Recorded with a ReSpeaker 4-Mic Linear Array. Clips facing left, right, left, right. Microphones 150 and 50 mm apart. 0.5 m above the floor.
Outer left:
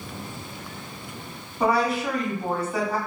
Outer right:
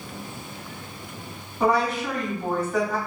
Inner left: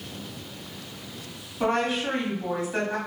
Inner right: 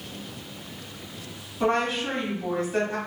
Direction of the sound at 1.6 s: 5° left (ahead or behind).